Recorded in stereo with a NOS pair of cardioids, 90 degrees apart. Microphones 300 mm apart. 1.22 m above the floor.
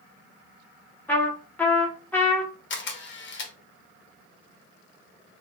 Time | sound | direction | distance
1.1 | a trumpet | 5° left | 1.1 m
2.7 | a camera shutter | 40° left | 0.9 m